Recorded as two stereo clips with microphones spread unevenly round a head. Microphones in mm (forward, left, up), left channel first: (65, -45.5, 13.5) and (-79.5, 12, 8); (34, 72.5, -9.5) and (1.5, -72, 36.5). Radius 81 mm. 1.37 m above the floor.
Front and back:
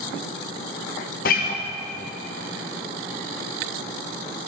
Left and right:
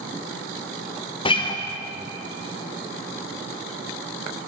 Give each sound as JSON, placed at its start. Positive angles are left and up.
{"t": 1.2, "sound": "a guitar", "azimuth_deg": 20, "distance_m": 0.9}